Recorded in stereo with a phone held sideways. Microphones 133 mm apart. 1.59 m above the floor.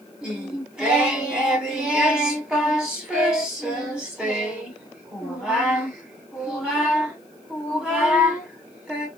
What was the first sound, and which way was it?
Singing, 5° right (ahead or behind).